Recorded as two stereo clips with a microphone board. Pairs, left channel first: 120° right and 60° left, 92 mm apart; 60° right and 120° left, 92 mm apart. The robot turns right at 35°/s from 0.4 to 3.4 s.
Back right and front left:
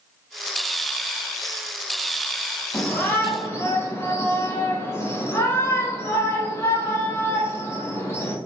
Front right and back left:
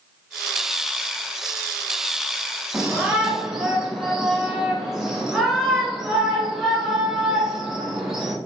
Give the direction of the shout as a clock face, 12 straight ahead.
6 o'clock.